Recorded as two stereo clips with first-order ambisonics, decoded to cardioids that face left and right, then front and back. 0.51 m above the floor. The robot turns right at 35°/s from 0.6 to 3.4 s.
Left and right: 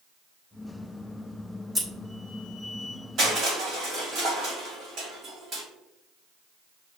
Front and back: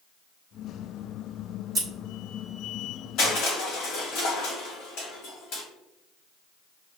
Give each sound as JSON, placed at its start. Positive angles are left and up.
{"t": 1.8, "sound": "scissors", "azimuth_deg": -150, "distance_m": 1.2}
{"t": 3.2, "sound": "crushing", "azimuth_deg": -40, "distance_m": 1.7}